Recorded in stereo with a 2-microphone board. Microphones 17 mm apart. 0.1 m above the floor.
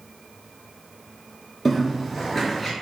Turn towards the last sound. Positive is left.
turn(degrees=10)  # may be behind; listen again after turning